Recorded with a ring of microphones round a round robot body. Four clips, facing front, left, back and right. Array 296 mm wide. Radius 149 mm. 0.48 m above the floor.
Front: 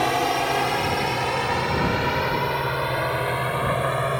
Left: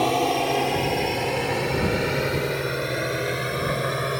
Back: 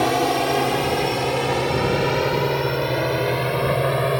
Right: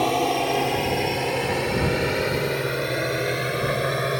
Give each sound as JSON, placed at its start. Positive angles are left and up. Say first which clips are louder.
{"t": 0.0, "sound": "a drone", "louder": "even, back 3 dB", "azimuth_deg": 180}